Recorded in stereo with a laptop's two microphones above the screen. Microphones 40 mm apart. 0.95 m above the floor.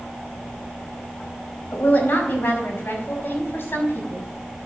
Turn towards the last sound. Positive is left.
turn(degrees=75)  # may be behind; listen again after turning